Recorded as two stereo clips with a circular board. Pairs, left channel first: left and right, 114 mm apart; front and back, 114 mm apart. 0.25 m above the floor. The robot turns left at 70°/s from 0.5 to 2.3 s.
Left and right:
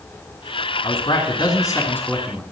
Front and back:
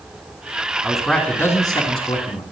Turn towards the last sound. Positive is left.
turn(degrees=0)